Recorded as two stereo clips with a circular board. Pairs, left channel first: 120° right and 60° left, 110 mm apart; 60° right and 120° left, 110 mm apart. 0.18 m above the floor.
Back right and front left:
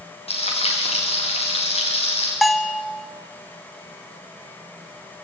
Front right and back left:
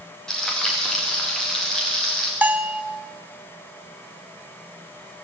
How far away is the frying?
About 7 m.